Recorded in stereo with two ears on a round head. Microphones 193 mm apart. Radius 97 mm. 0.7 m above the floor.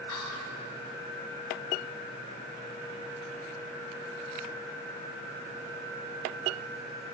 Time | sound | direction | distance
0.1 | whispering | 75° left (ahead or behind) | 2 m